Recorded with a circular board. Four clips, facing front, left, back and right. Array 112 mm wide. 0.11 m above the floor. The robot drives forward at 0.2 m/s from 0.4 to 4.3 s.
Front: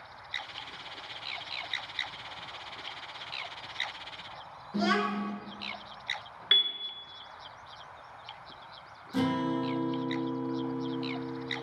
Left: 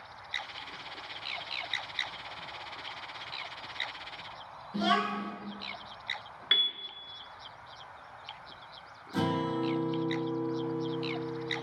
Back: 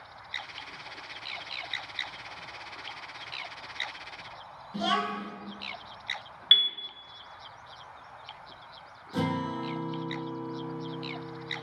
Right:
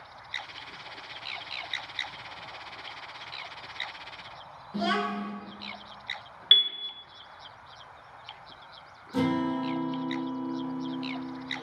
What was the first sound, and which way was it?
A child speaking, 5° right.